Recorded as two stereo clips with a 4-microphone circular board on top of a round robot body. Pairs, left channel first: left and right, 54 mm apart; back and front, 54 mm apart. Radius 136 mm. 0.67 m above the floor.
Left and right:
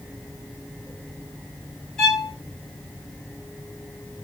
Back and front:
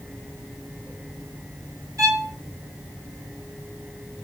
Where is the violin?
10° left, 5.5 m.